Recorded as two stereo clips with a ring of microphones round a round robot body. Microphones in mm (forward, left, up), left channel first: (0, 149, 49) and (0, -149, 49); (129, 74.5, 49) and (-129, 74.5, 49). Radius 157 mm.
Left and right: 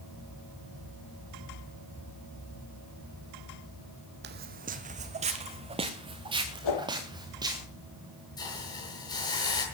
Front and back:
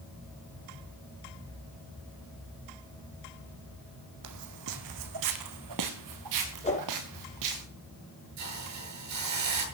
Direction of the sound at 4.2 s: 145° right.